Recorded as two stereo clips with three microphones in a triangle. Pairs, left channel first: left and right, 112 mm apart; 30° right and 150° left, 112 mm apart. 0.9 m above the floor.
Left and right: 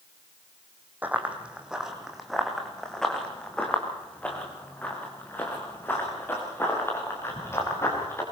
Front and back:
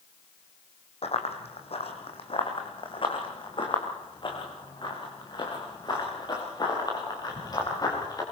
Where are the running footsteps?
15° right, 3 m; by 8.2 s 25° left, 7.5 m.